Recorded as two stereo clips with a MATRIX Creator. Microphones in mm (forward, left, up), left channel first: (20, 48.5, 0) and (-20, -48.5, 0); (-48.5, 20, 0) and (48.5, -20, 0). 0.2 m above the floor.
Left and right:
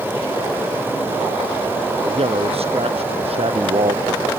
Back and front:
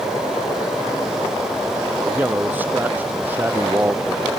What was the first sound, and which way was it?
A man speaking, 95° right.